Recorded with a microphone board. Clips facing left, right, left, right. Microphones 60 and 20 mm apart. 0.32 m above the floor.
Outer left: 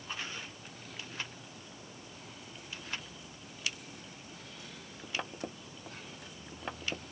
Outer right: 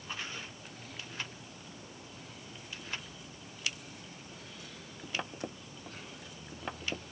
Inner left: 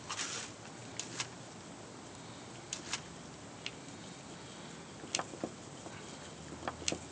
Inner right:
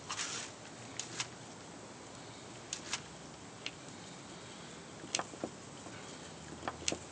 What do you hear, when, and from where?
Only background noise.